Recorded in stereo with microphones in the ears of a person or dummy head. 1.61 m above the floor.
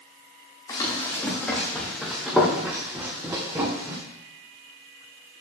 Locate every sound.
0.7 s running footsteps: 15° left (ahead or behind), 4 m; by 4.0 s 25° right (ahead or behind), 3.5 m